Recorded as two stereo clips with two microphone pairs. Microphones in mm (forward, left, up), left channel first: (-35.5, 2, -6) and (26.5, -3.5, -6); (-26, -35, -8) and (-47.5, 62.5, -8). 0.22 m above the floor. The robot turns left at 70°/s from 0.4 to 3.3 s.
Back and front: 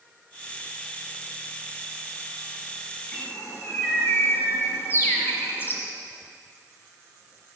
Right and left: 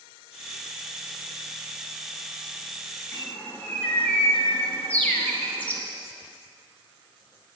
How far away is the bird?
About 1.8 m.